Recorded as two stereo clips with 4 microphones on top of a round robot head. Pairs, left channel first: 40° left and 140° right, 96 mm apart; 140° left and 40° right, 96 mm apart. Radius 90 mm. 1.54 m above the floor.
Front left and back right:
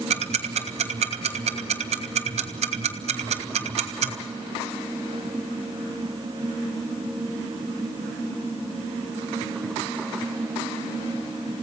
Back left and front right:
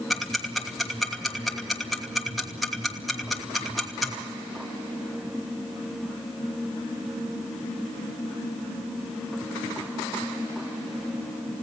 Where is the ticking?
130° right, 2.5 m.